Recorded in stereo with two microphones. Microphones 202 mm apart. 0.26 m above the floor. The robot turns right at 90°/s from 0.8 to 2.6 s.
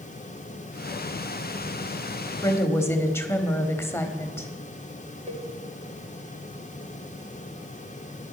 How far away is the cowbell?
About 1.0 m.